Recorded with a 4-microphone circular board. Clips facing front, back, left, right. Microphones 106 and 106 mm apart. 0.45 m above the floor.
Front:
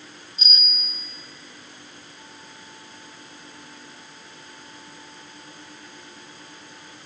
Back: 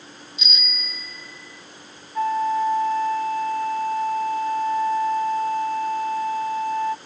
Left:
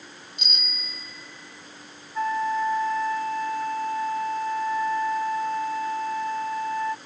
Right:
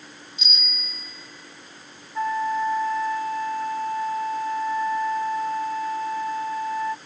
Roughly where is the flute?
Behind.